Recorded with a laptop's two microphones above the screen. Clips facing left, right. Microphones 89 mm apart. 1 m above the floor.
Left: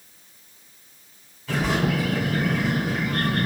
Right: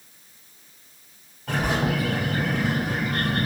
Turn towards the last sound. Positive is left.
turn(degrees=-60)  # may be behind; listen again after turning